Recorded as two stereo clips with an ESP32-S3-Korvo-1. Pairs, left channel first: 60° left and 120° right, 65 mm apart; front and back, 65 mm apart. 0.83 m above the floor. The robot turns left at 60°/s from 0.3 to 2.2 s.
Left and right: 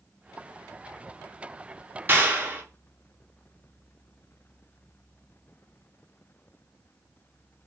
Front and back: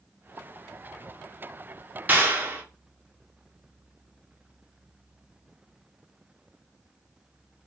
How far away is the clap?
About 0.7 m.